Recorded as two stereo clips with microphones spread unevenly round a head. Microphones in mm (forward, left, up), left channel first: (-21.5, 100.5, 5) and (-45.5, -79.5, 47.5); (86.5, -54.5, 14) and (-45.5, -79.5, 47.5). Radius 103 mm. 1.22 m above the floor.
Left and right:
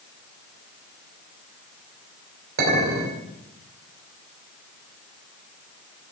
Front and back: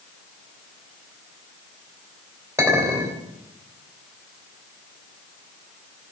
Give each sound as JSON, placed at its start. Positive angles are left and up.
{"t": 2.6, "sound": "a clink", "azimuth_deg": -105, "distance_m": 3.0}